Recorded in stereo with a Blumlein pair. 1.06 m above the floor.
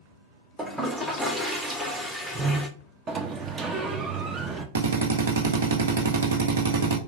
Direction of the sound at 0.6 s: 5° right.